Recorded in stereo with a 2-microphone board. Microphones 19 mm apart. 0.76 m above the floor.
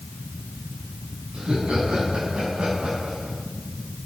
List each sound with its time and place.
1.3 s laughter: 75° right (ahead or behind), 6 m; by 3.4 s 80° right, 6 m